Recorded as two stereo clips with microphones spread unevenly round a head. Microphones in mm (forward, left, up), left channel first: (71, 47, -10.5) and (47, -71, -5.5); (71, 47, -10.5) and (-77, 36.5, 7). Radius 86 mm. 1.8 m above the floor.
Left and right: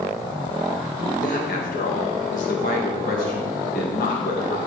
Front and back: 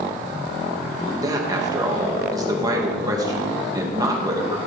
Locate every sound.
1.2 s a man speaking: 120° left, 2 m